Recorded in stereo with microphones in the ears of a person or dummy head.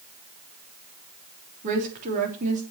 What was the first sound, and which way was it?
A woman speaking, 40° right (ahead or behind).